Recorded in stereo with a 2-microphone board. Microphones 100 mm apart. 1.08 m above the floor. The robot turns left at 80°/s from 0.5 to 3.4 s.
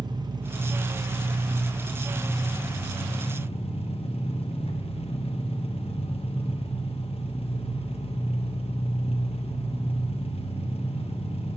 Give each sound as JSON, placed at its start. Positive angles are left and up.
{"t": 0.0, "sound": "an engine running", "azimuth_deg": -45, "distance_m": 0.8}